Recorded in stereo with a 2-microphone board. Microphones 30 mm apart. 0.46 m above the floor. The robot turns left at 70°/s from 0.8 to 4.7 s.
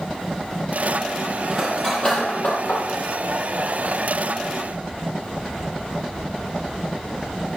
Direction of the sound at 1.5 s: 10° right (ahead or behind).